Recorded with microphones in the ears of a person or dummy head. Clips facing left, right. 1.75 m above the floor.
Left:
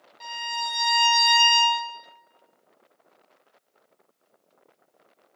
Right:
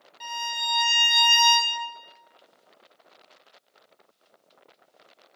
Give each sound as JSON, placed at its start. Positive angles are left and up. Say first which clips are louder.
{"t": 0.2, "sound": "a violin", "louder": "left 1 dB", "side_deg": -10, "distance_m": 0.9}